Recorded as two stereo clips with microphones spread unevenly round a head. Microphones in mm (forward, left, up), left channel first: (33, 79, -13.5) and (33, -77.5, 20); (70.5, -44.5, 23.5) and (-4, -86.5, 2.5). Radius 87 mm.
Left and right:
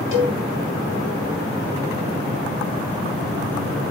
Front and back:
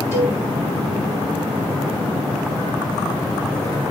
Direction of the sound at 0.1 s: 105° left.